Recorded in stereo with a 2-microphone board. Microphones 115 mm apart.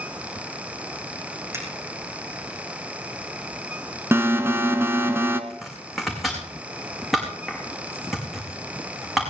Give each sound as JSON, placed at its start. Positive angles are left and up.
{"t": 1.5, "sound": "a finger snap", "side_deg": -25, "distance_m": 6.0}
{"t": 4.1, "sound": "an alarm", "side_deg": -20, "distance_m": 1.1}
{"t": 5.5, "sound": "chopping", "side_deg": 0, "distance_m": 5.0}